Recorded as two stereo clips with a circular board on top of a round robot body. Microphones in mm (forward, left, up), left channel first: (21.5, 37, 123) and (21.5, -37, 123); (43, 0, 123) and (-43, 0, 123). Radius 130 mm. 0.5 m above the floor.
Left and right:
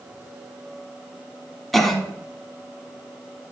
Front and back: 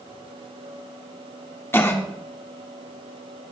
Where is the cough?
5° left, 1.4 m.